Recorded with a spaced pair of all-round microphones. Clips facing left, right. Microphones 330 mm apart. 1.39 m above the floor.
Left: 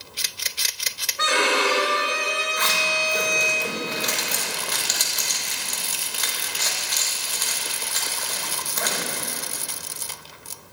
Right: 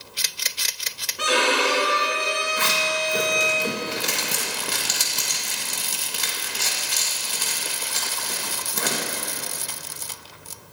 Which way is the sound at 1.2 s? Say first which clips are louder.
Right 1 dB; 45° right (ahead or behind).